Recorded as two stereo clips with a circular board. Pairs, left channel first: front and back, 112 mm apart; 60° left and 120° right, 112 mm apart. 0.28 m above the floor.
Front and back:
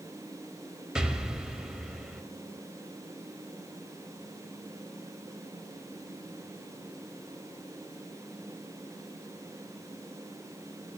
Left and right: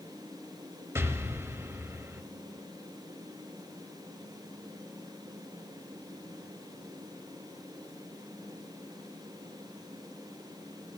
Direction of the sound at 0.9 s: 105° right.